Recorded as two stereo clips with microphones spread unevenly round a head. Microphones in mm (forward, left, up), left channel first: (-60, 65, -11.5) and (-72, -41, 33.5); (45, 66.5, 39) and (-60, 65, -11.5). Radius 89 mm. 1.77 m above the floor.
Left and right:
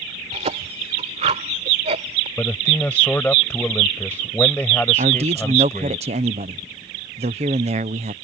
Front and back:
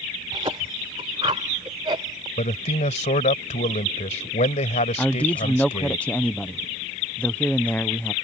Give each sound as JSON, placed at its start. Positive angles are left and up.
{"t": 0.3, "sound": "a cough", "azimuth_deg": -110}
{"t": 2.4, "sound": "a man speaking", "azimuth_deg": -5}
{"t": 5.0, "sound": "a man speaking", "azimuth_deg": -75}